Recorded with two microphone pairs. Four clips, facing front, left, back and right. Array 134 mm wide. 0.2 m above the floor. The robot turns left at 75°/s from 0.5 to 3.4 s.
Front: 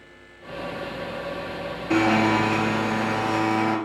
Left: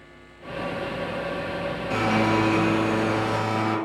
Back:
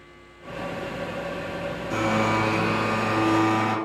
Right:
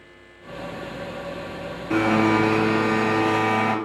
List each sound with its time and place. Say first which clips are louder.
1.9 s a blender: right 4 dB, front 4 dB; 10° right, 0.9 m; by 3.8 s 120° right, 0.9 m